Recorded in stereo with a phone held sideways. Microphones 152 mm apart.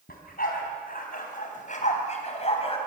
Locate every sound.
0.1 s a dog barking: 80° left, 4 m; by 2.8 s 40° left (ahead or behind), 3.5 m